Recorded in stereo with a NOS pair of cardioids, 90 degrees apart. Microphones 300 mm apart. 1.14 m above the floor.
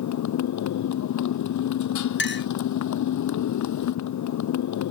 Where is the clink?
40° left.